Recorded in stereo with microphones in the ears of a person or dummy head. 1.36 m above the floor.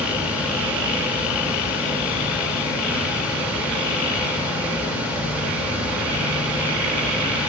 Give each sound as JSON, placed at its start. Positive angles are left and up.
{"t": 0.0, "sound": "a fan", "side_deg": -10, "distance_m": 4.5}